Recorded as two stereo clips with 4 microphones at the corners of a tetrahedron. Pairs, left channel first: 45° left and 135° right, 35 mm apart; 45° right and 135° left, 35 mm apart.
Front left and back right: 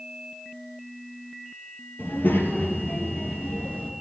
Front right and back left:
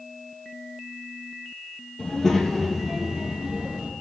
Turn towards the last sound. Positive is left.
turn(degrees=80)